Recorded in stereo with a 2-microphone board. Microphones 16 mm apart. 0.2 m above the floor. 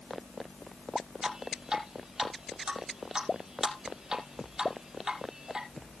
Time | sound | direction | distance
1.2 | dripping | 35° right (ahead or behind) | 4.5 m